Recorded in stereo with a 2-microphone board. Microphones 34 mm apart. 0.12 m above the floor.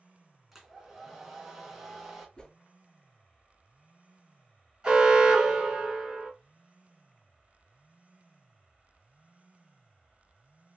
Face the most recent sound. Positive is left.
turn(degrees=-20)  # may be behind; listen again after turning